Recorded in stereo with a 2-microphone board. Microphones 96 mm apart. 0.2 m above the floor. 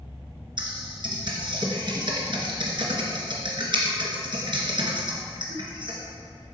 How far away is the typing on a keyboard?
About 2.5 m.